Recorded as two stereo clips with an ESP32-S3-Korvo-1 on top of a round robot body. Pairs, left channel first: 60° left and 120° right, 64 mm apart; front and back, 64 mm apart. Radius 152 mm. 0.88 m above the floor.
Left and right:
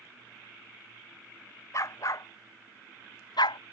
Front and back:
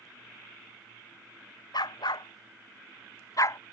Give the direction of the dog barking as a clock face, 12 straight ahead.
11 o'clock.